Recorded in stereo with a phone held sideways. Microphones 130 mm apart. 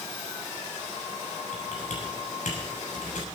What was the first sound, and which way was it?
Typing on a keyboard, 80° left.